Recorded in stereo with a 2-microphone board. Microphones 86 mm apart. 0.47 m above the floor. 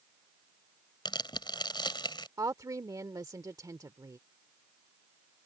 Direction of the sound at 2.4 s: 45° right (ahead or behind).